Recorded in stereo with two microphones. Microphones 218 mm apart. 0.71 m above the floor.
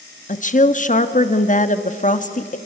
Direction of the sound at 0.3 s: 35° left (ahead or behind).